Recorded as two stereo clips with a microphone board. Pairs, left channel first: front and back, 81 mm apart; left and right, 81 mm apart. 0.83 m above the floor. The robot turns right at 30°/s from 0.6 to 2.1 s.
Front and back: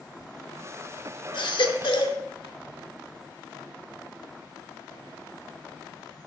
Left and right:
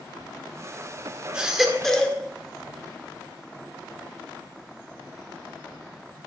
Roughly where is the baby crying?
Ahead.